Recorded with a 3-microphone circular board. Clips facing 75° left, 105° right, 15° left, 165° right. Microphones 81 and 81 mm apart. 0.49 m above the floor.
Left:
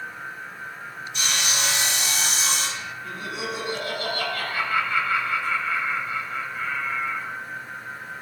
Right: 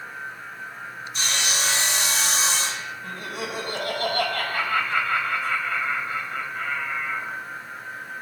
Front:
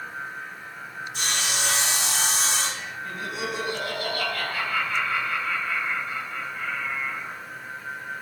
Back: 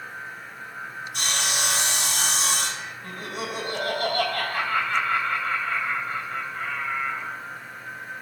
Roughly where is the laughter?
Behind right.